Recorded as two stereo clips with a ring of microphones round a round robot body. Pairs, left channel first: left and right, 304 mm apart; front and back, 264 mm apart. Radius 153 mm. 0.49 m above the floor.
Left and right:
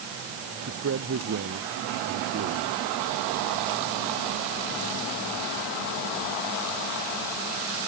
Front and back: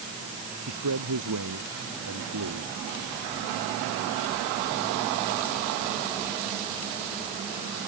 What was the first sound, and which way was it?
A man speaking, 140° right.